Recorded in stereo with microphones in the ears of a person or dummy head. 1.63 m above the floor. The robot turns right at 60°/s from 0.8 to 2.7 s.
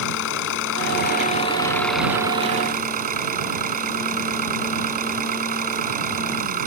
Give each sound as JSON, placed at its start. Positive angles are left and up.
{"t": 0.0, "sound": "an engine running", "azimuth_deg": 110}